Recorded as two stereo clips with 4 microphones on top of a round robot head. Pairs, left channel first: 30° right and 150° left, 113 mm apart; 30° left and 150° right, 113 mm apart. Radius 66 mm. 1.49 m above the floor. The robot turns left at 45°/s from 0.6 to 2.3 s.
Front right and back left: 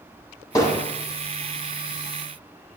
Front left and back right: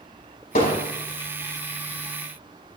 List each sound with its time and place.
0.6 s hammering: 30° left, 6.5 m; by 0.8 s 20° left, 6.5 m